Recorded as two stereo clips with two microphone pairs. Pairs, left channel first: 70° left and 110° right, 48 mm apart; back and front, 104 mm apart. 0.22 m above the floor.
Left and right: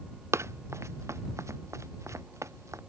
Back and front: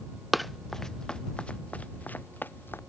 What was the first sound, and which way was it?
Running footsteps, 90° right.